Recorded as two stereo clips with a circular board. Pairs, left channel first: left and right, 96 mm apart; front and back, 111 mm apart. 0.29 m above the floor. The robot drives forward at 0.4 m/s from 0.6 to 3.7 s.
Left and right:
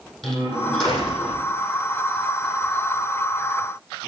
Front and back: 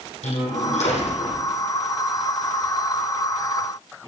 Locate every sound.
0.2 s a door slam: 5° left, 8.5 m